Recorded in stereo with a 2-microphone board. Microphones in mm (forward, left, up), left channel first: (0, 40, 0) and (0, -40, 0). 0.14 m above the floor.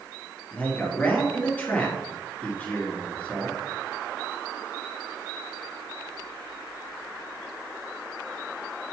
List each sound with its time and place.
0.5 s a man speaking: 20° left (ahead or behind), 2.5 m